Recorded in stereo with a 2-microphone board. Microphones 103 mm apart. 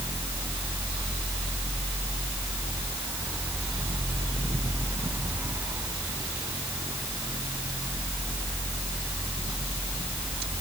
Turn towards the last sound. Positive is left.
No sound to turn to.